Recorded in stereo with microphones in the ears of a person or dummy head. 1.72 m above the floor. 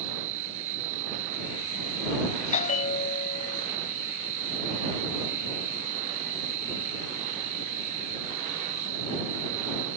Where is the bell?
35° left (ahead or behind).